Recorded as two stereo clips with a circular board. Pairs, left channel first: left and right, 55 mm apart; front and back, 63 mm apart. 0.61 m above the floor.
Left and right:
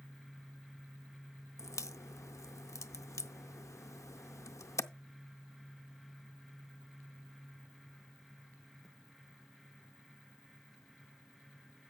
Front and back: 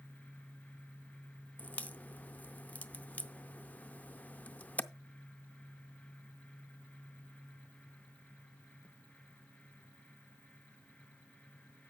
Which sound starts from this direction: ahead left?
A crack, at 1.6 s.